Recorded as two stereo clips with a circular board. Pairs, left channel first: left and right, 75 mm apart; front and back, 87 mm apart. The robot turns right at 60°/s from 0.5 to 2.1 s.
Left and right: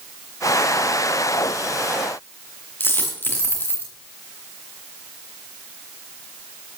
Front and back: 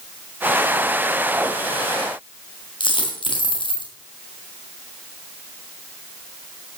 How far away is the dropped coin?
About 4 m.